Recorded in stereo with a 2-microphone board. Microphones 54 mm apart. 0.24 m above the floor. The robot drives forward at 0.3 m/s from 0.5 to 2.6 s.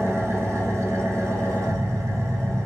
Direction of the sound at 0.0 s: 60° right (ahead or behind).